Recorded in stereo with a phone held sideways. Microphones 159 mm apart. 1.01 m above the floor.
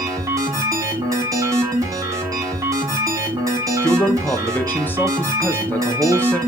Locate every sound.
0.0 s a machine running: 20° right (ahead or behind), 1.0 m
3.8 s a man speaking: 10° left (ahead or behind), 0.5 m